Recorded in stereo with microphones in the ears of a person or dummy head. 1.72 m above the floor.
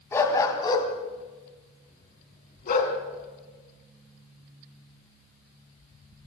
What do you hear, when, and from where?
0.1 s a dog barking: 20° left (ahead or behind), 3.5 m; by 2.9 s 55° left (ahead or behind), 5 m